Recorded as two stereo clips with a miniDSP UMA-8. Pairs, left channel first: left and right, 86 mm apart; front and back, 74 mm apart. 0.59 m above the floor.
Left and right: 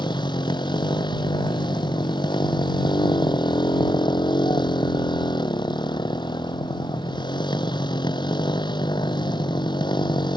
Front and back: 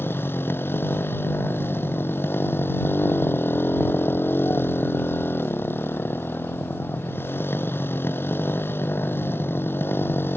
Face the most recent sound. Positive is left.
turn(degrees=60)